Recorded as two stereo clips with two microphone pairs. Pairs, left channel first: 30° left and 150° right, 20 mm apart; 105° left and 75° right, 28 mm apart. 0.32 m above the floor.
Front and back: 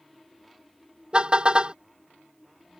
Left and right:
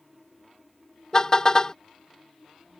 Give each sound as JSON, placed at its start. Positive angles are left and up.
{"t": 1.1, "sound": "a car horn", "azimuth_deg": 170}